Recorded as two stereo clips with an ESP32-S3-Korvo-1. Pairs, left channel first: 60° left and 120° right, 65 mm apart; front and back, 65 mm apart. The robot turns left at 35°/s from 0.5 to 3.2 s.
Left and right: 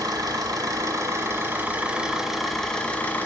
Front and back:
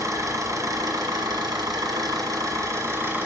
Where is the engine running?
140° right, 1.7 m; by 3.3 s 125° left, 1.7 m.